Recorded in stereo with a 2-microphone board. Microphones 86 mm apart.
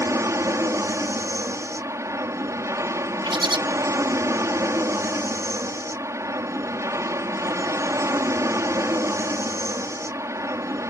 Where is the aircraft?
35° right (ahead or behind).